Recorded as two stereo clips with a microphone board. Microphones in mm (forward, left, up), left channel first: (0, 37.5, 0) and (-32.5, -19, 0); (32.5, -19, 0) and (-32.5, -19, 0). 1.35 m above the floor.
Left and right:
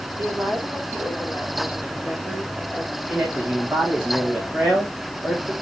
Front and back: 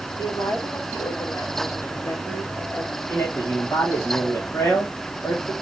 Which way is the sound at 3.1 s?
55° right.